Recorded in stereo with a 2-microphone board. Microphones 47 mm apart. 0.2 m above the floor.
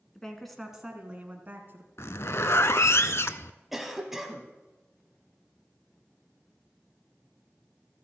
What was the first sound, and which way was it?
A woman speaking, 10° left (ahead or behind).